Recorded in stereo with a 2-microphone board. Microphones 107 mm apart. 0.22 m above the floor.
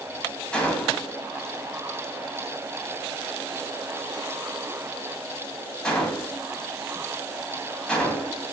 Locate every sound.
0.5 s a gunshot: 10° left (ahead or behind), 0.7 m